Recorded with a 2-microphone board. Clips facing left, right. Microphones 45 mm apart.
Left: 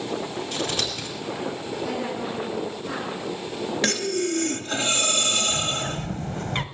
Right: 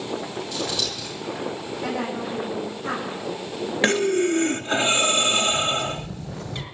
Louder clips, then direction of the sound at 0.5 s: Even; 45° left (ahead or behind).